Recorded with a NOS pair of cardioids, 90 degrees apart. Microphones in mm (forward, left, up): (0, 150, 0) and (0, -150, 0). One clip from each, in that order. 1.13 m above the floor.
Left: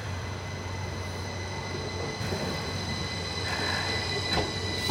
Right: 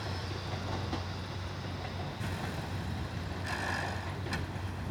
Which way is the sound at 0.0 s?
20° left.